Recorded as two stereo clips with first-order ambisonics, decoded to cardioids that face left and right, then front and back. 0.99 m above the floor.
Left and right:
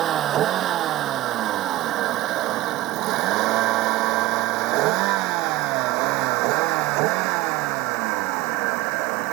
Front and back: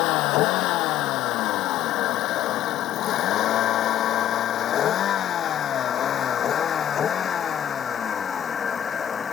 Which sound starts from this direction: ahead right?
A vehicle, at 0.0 s.